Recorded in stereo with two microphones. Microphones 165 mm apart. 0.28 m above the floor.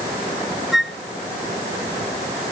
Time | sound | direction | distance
0.7 | a flute | centre (ahead or behind) | ?